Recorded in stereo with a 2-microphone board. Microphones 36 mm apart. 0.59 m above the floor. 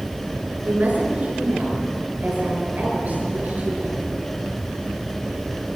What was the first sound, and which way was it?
A woman speaking, 50° right (ahead or behind).